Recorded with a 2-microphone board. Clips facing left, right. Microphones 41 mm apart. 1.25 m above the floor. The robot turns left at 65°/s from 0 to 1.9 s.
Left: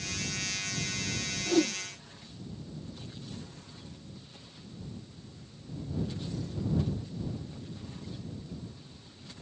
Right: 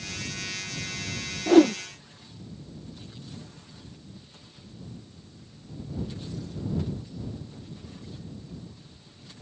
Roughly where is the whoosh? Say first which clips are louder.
Right 10 dB; right.